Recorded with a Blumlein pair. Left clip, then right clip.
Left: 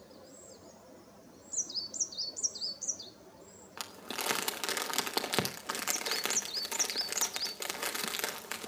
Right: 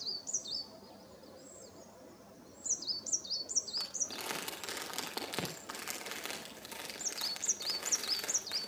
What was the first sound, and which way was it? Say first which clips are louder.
Crumpling: even; 65° left.